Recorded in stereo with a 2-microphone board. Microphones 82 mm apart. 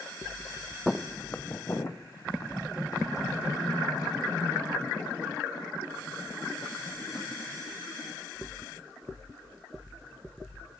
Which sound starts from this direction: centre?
Footsteps, at 0.9 s.